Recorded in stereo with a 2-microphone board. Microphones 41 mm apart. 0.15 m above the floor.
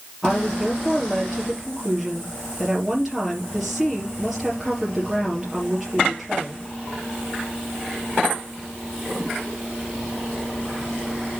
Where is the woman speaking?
5° right (ahead or behind), 3.5 m.